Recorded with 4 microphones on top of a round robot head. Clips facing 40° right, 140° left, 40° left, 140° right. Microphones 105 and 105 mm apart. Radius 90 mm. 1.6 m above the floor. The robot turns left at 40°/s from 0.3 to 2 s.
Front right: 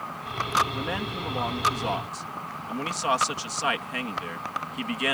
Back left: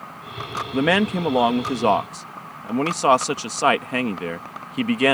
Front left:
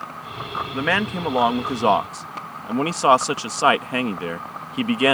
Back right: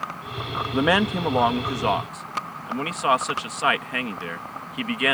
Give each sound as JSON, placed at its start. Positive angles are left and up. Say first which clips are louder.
{"t": 0.7, "sound": "a man speaking", "louder": "back left 11 dB, back right 3 dB", "azimuth_deg": 150}